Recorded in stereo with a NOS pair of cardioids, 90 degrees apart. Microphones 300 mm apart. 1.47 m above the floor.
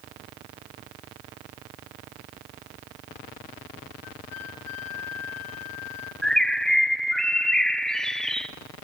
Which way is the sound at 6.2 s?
Straight ahead.